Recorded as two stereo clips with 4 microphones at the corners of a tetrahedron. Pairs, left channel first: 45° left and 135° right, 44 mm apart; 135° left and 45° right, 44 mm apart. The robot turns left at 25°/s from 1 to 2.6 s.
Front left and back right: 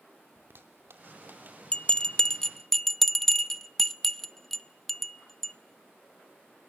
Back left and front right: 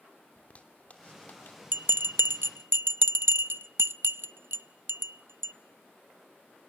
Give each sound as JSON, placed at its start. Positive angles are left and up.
{"t": 0.4, "sound": "a zipper", "azimuth_deg": -170, "distance_m": 2.5}
{"t": 1.7, "sound": "a bell", "azimuth_deg": -15, "distance_m": 0.5}